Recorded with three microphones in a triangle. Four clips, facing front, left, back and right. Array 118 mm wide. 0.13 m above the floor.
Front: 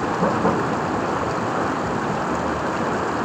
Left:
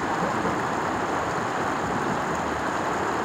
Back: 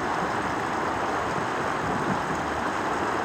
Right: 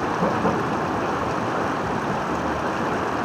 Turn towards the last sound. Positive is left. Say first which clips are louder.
# right 3 dB, front 7 dB
turn(degrees=-20)